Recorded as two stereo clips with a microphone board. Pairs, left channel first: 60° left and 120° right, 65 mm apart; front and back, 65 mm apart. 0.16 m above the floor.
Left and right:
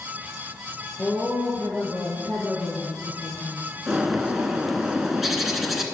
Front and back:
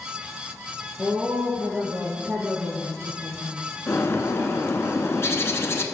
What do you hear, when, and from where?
1.0 s a woman speaking: 95° left, 2 m
3.9 s a bird: 35° right, 0.8 m